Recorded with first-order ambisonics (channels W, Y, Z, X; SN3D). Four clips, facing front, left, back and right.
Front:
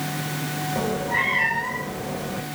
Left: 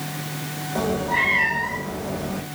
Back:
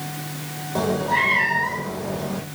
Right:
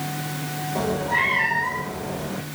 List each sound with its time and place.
0.8 s a cat meowing: 175° left, 4.5 m